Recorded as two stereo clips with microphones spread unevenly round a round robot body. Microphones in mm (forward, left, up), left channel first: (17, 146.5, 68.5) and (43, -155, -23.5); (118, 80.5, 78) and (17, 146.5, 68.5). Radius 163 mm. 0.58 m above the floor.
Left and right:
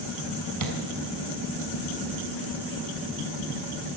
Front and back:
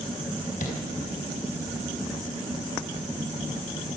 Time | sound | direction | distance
0.6 | tapping | 60° right | 4.5 m